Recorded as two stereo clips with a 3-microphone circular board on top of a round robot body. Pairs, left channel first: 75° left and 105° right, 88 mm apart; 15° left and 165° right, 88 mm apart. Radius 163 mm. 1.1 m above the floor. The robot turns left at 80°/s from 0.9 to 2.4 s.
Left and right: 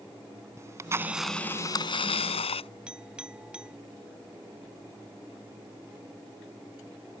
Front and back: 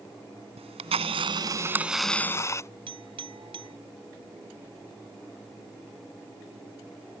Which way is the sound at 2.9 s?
175° left.